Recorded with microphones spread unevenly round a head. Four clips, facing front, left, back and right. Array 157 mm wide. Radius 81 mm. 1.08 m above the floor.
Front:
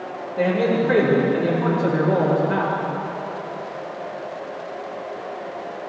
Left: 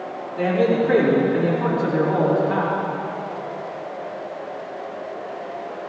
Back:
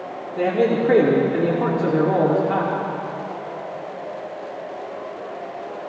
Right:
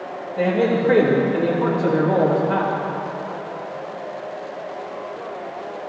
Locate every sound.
0.4 s a man speaking: straight behind, 3 m